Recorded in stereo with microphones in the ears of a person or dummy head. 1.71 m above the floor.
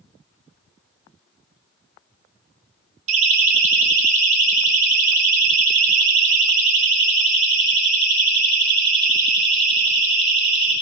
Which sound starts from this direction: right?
A siren, at 3.1 s.